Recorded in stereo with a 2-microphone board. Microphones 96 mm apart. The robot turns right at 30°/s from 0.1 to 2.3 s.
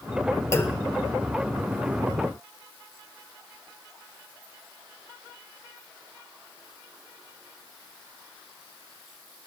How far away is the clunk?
About 1.6 m.